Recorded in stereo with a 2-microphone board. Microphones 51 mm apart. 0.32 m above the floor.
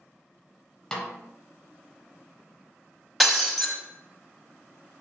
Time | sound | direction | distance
0.9 | a snare drum | 15° left (ahead or behind) | 0.5 m
3.2 | breaking glass | centre (ahead or behind) | 0.6 m